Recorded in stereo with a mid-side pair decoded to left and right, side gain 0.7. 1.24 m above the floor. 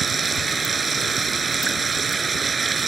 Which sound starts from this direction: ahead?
Running water, at 0.0 s.